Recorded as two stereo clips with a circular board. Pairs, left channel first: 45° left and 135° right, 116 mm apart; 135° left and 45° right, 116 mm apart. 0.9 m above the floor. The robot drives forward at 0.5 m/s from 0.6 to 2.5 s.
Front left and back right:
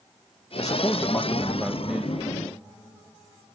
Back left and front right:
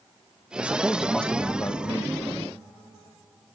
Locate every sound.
0.6 s a man speaking: 20° left, 0.6 m; by 2.2 s 165° left, 0.7 m